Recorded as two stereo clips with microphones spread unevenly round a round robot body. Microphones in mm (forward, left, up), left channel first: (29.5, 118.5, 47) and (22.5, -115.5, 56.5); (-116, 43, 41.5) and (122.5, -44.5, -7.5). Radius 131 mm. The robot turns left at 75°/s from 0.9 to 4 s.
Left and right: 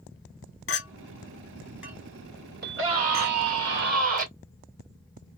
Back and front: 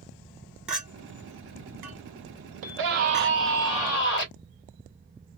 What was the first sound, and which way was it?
A clink, 65° left.